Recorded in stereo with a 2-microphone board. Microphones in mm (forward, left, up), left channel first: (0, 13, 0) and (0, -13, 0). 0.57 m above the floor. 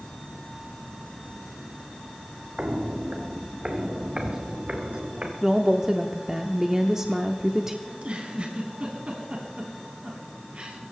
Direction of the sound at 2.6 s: 60° right (ahead or behind).